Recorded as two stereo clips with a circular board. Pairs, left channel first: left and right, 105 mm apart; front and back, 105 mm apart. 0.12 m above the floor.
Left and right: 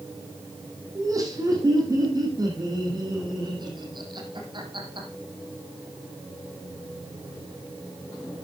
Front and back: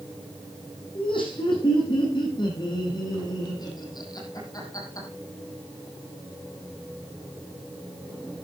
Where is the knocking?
I don't hear knocking.